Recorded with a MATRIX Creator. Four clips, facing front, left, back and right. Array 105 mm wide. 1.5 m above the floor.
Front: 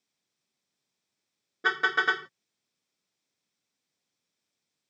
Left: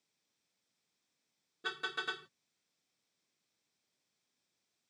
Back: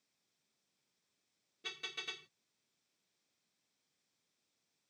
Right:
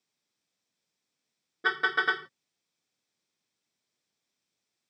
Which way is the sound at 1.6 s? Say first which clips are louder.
Right 13 dB, front 25 dB; 35° right.